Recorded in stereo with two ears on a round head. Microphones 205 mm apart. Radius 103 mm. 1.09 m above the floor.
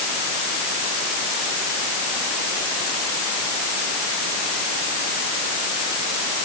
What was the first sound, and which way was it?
Only background noise.